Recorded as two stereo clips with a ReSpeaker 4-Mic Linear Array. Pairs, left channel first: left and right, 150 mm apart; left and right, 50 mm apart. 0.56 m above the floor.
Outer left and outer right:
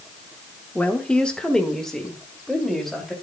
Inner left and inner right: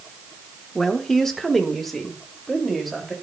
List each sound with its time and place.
0.8 s a woman speaking: 10° left (ahead or behind), 1.0 m; by 3.1 s centre (ahead or behind), 3 m